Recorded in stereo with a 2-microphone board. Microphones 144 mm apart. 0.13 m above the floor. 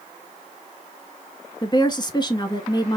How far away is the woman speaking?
About 1.2 m.